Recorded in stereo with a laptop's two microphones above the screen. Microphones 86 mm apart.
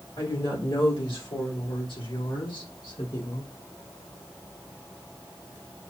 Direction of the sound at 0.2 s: 85° left.